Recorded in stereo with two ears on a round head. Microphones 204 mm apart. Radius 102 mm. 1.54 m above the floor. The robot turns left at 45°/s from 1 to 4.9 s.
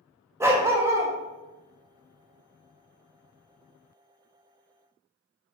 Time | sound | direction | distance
0.4 | a dog barking | 10° right (ahead or behind) | 0.9 m